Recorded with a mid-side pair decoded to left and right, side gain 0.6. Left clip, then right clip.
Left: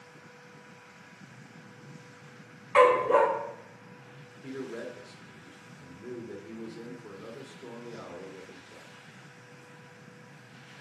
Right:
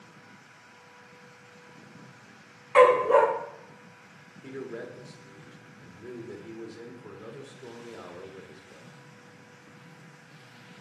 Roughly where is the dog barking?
Ahead.